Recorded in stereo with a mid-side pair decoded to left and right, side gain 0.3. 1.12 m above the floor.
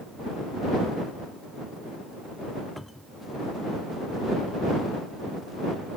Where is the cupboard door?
5° left.